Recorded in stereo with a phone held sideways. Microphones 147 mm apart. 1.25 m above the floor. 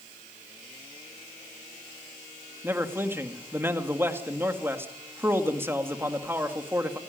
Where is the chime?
I don't hear a chime.